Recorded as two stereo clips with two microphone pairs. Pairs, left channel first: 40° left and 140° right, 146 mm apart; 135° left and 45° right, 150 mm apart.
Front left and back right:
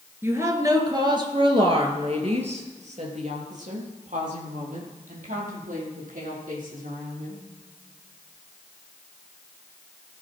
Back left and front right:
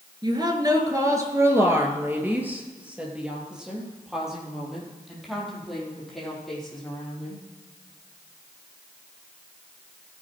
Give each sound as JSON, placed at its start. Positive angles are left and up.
{"t": 0.2, "sound": "a woman speaking", "azimuth_deg": -80, "distance_m": 2.0}